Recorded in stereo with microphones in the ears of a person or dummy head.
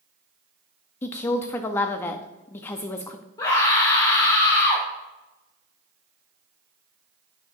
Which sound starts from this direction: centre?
A woman speaking, at 1.0 s.